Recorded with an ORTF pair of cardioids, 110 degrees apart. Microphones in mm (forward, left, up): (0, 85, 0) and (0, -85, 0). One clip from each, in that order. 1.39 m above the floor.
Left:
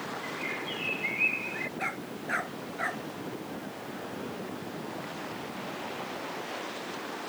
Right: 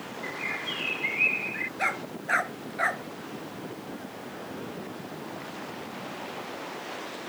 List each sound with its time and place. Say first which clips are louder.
0.2 s a bird: right 6 dB; 25° right
1.8 s a dog barking: right 5 dB; 35° right